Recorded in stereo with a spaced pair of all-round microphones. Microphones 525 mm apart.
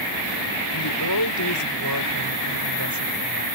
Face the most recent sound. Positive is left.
turn(degrees=30)  # may be behind; listen again after turning